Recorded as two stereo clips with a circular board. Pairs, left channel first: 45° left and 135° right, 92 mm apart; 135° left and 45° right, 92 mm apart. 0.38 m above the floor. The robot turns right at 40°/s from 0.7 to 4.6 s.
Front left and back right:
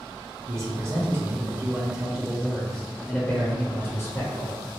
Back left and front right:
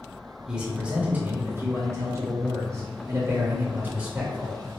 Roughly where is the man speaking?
Behind right.